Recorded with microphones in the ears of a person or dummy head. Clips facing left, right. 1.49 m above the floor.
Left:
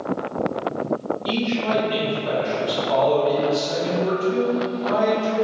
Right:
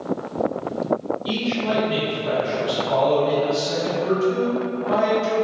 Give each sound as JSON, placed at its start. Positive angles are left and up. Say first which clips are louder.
{"t": 1.2, "sound": "a man speaking", "louder": "left 1 dB", "side_deg": 45, "distance_m": 1.6}